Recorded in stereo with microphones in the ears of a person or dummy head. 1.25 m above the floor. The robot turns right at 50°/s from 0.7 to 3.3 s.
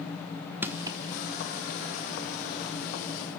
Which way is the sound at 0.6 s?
10° right (ahead or behind).